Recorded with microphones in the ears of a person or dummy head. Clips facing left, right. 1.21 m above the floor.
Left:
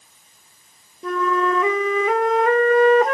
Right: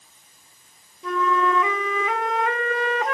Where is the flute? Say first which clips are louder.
Left 2 dB; 40° left (ahead or behind), 0.8 m.